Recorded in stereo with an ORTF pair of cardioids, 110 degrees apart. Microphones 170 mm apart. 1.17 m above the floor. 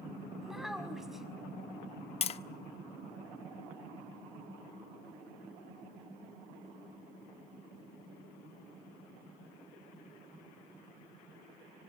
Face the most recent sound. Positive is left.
turn(degrees=40)